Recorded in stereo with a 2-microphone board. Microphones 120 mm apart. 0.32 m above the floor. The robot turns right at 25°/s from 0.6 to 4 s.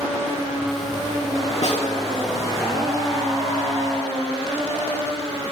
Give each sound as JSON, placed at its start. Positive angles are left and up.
{"t": 1.6, "sound": "a snare drum", "side_deg": 60, "distance_m": 4.0}